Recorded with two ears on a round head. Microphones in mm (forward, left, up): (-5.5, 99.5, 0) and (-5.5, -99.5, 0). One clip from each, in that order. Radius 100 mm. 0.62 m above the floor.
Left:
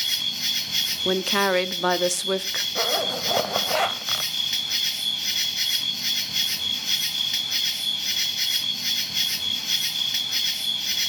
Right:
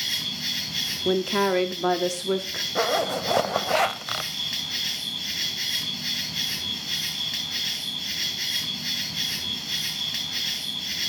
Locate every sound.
0.0 s an insect: 40° left (ahead or behind), 2.5 m
1.1 s a woman speaking: 45° left (ahead or behind), 0.8 m
2.8 s a zipper: centre (ahead or behind), 0.6 m